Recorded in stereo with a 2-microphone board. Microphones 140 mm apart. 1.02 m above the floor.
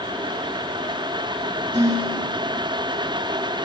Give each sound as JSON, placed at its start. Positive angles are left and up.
{"t": 1.7, "sound": "dishes clattering", "side_deg": -35, "distance_m": 5.0}